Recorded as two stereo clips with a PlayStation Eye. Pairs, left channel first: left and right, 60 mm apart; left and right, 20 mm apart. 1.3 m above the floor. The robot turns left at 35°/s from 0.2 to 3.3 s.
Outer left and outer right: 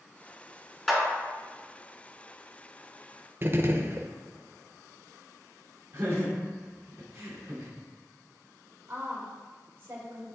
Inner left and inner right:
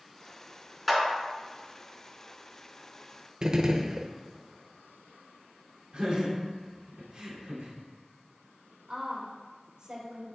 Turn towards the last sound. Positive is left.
turn(degrees=-35)  # may be behind; listen again after turning